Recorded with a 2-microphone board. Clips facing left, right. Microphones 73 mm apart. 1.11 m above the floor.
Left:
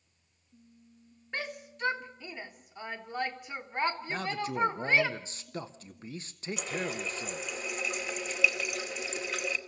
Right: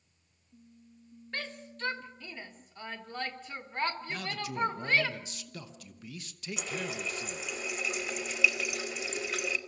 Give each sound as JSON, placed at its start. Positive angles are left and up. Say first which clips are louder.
{"t": 1.3, "sound": "a shout", "louder": "left 2 dB", "side_deg": 15, "distance_m": 1.7}
{"t": 4.1, "sound": "a man speaking", "louder": "left 4 dB", "side_deg": 35, "distance_m": 1.0}
{"t": 6.6, "sound": "a running tap", "louder": "left 2 dB", "side_deg": 0, "distance_m": 1.7}